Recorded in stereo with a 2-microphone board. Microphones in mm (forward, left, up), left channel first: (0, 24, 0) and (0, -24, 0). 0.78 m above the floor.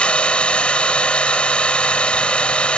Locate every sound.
0.0 s an engine running: 25° left (ahead or behind)